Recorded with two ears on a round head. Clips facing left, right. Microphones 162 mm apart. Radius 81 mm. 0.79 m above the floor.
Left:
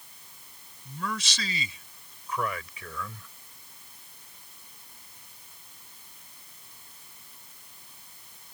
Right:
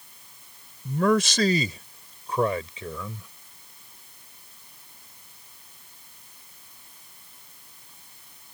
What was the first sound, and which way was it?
A man speaking, 55° right (ahead or behind).